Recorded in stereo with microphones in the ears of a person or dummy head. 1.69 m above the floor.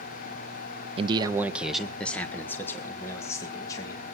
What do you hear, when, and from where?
1.0 s a man speaking: 35° right (ahead or behind), 0.6 m; by 4.0 s 20° left (ahead or behind), 2.5 m